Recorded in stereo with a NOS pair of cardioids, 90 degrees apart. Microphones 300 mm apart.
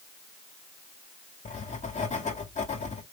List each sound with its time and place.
1.4 s writing: 25° left, 1.9 m